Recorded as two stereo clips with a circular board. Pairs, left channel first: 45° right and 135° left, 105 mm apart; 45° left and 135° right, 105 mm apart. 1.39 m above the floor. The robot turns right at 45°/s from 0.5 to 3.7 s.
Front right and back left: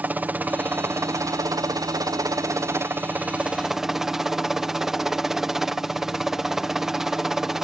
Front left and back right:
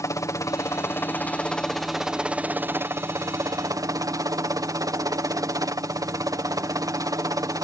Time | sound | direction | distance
0.0 | a helicopter | 75° left | ?